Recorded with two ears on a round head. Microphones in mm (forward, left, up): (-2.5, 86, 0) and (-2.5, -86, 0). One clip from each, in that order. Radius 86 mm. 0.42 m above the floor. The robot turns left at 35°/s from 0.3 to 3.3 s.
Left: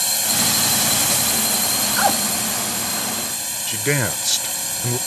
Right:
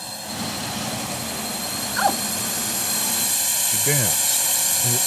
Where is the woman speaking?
5° left (ahead or behind); by 2.2 s centre (ahead or behind).